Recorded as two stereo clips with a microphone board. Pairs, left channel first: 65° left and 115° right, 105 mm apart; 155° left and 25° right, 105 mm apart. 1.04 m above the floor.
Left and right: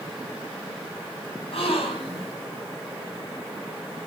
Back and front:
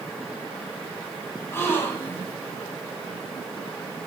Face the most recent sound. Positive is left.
turn(degrees=90)